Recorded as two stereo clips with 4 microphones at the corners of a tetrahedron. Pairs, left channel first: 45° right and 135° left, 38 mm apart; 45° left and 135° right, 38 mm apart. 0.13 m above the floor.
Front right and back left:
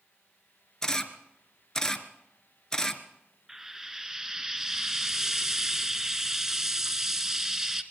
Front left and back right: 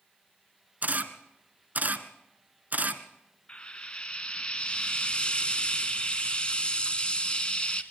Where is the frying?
65° left, 1.3 m.